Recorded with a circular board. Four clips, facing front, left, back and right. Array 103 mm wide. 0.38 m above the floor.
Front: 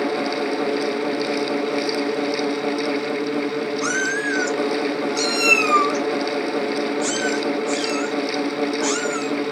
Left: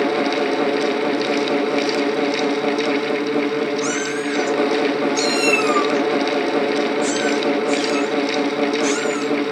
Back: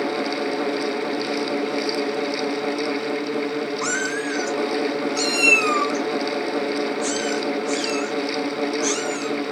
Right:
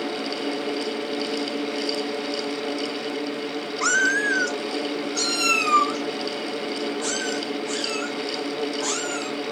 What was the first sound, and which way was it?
A cat meowing, 85° right.